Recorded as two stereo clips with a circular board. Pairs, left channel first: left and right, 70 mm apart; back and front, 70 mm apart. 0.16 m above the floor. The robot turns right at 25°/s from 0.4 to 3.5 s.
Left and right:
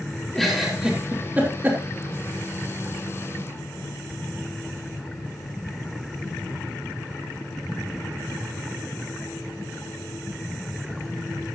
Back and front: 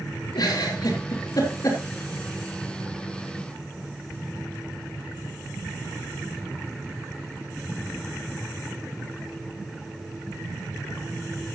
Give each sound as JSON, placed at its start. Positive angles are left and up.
{"t": 0.3, "sound": "a giggle", "azimuth_deg": 175, "distance_m": 5.5}